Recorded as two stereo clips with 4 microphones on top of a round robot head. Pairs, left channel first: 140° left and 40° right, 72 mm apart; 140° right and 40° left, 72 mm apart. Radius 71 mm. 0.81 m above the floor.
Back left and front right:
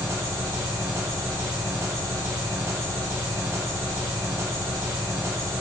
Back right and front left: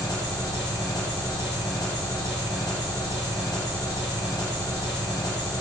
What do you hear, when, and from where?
0.0 s an engine running: 100° right, 1.5 m